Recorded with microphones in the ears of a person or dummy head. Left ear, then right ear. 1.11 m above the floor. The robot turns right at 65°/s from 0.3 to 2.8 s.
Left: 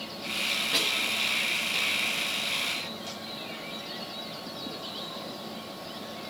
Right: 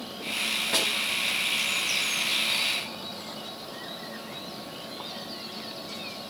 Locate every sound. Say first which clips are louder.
0.7 s a snare drum: right 1 dB; 25° right (ahead or behind), 5 m; by 0.9 s 40° right (ahead or behind), 5 m